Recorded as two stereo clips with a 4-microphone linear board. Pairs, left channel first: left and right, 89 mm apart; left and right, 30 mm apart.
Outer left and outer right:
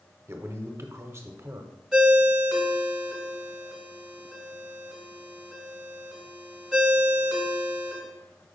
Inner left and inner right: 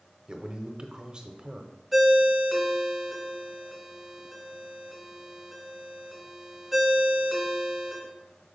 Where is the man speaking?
30° right (ahead or behind), 0.9 m.